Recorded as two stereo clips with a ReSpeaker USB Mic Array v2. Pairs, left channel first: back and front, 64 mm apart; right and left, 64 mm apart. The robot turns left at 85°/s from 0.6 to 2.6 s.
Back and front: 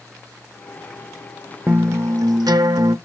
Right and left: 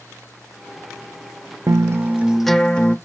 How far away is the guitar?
About 0.5 m.